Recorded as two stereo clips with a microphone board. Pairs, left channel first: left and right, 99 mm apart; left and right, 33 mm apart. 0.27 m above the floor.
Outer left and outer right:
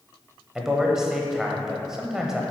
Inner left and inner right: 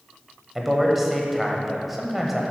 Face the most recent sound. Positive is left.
turn(degrees=-5)  # may be behind; listen again after turning